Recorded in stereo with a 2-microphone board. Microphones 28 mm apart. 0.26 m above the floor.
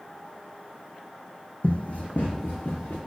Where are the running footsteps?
50° left (ahead or behind), 0.5 m; by 3.0 s 80° left, 1.1 m.